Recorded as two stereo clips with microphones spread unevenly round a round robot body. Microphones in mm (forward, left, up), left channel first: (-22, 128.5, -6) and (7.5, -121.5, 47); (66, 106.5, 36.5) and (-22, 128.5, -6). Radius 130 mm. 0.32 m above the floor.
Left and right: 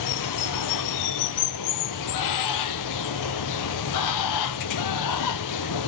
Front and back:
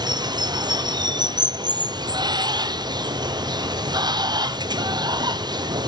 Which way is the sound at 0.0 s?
115° left.